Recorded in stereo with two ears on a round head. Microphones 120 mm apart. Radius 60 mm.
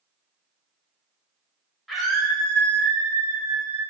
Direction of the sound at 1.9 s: Centre (ahead or behind).